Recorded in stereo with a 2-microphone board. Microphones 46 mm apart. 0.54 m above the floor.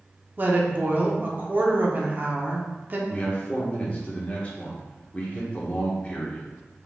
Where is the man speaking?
25° left (ahead or behind), 1.1 m.